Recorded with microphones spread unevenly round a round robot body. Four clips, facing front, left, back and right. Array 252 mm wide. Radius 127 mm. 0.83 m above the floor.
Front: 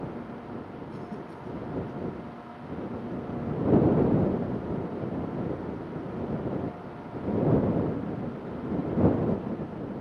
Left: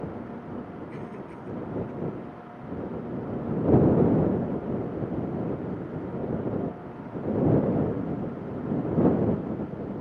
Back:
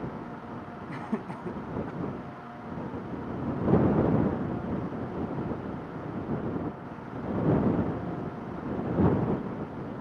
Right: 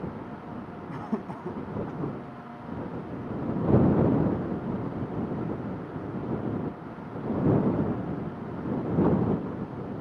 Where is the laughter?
120° right.